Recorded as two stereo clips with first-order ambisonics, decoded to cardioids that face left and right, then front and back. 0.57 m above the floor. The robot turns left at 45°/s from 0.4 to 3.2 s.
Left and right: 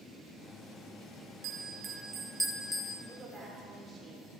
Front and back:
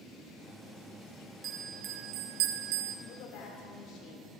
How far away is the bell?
About 1.1 m.